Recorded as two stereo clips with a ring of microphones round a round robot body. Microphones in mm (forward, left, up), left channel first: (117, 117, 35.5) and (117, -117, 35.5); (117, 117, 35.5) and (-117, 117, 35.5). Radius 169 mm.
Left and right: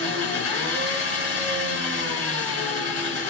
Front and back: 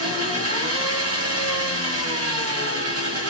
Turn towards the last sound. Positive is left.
turn(degrees=-175)